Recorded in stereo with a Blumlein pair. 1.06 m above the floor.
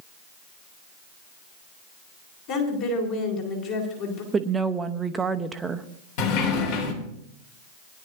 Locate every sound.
2.5 s a woman speaking: 45° left, 3.5 m
4.3 s a woman speaking: 15° right, 0.9 m
6.2 s a sliding door: 45° left, 2.5 m